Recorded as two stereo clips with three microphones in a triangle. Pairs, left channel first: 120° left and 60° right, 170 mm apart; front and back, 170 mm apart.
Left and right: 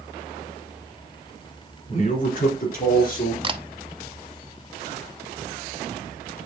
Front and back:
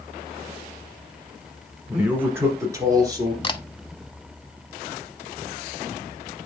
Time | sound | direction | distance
1.9 | a man speaking | 100° left | 2 m
3.4 | a camera shutter | 35° right | 0.6 m